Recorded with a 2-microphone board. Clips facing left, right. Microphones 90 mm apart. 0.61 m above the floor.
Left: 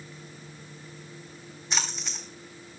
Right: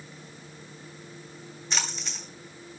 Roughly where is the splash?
Centre.